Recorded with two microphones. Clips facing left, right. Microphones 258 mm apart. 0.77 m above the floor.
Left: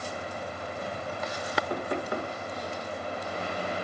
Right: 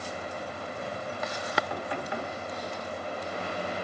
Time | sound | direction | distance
1.7 | knocking | 50° left (ahead or behind) | 1.3 m